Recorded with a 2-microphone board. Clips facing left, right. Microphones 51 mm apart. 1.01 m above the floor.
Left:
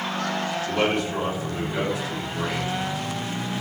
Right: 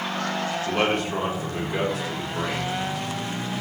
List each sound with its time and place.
0.7 s a man speaking: 35° right (ahead or behind), 0.8 m; by 2.7 s 60° right (ahead or behind), 1.6 m